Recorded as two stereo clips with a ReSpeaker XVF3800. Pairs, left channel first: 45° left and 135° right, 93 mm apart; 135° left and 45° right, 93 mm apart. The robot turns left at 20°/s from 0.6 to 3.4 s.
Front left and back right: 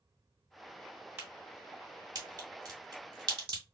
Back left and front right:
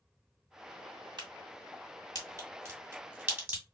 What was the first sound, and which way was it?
A crack, 75° right.